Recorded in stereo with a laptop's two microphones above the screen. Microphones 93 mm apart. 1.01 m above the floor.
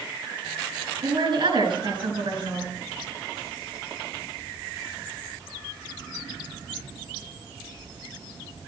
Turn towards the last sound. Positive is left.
turn(degrees=-60)  # may be behind; listen again after turning